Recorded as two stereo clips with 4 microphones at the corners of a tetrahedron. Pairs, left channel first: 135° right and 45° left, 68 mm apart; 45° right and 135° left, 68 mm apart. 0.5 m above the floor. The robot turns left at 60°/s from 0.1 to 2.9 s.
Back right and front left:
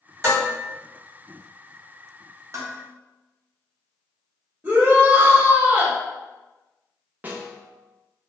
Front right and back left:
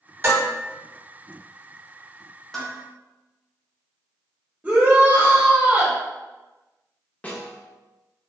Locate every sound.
0.2 s dishes clattering: 90° left, 1.8 m; by 0.5 s 75° left, 1.8 m
2.5 s dishes clattering: 35° left, 0.8 m; by 2.8 s 20° left, 0.8 m
4.6 s a shout: 90° left, 1.1 m
7.2 s a snare drum: 5° left, 0.6 m